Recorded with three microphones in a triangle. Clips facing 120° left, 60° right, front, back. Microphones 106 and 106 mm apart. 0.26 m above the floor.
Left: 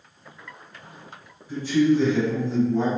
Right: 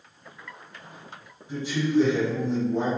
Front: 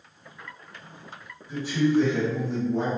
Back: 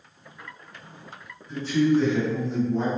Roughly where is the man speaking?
Ahead right.